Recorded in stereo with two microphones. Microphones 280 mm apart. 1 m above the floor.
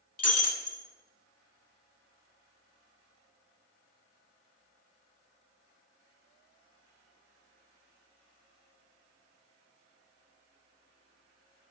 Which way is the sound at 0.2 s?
60° left (ahead or behind).